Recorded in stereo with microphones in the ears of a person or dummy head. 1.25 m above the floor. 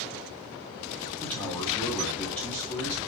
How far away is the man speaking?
About 2 m.